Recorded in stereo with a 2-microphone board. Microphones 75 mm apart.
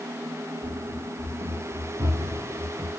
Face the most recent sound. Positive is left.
turn(degrees=-70)  # may be behind; listen again after turning